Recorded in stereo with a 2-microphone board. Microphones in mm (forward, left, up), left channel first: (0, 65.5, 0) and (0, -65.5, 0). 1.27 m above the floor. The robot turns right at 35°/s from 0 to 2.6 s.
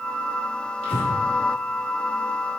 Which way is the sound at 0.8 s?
50° left (ahead or behind).